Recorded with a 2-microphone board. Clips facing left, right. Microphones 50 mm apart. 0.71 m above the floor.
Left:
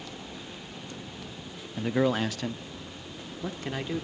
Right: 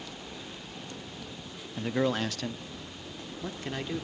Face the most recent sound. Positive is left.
turn(degrees=10)  # may be behind; listen again after turning